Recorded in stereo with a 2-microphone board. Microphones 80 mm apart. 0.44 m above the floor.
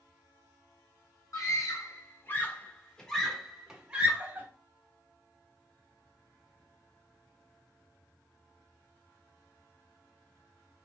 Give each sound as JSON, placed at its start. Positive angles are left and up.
{"t": 1.3, "sound": "a scream", "side_deg": 45, "distance_m": 1.3}